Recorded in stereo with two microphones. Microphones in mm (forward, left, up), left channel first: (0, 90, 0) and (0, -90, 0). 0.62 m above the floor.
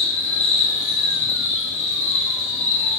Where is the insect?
40° left (ahead or behind), 1.8 m.